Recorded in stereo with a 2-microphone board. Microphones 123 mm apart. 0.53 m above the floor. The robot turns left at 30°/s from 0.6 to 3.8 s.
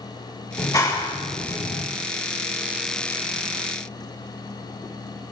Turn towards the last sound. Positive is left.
turn(degrees=55)